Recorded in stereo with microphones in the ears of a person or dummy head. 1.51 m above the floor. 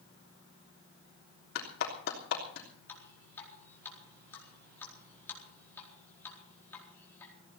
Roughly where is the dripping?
Centre.